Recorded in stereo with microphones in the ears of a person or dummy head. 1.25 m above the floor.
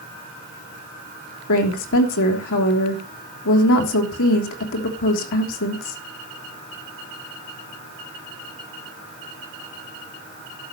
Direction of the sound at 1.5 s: 70° left (ahead or behind).